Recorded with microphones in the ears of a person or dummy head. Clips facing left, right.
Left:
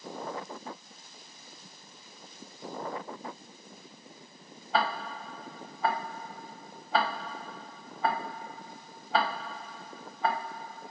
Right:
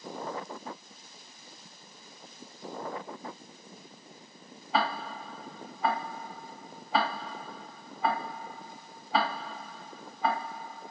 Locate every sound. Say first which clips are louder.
4.7 s ticking: even; centre (ahead or behind), 3 m